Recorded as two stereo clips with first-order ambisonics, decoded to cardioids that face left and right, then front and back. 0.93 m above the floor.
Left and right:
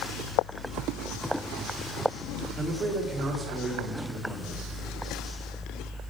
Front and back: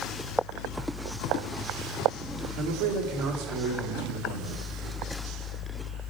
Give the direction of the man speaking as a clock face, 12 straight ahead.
6 o'clock.